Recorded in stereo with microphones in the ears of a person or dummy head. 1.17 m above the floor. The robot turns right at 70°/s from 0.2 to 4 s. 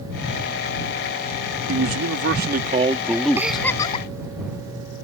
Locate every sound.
1.7 s a man speaking: 105° right; by 3.6 s 30° left
3.4 s a giggle: 10° right; by 4.1 s 35° left